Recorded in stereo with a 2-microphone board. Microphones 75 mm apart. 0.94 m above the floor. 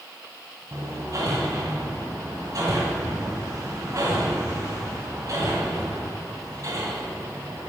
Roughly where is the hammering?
Right.